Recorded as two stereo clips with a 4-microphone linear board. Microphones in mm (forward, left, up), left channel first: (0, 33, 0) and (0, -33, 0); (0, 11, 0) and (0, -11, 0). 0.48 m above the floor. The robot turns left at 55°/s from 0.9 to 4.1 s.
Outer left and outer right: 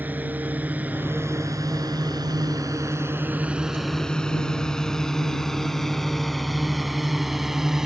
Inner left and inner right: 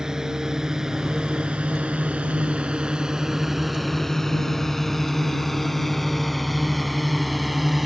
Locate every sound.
0.0 s a drone: 25° right (ahead or behind); by 7.9 s 10° right (ahead or behind)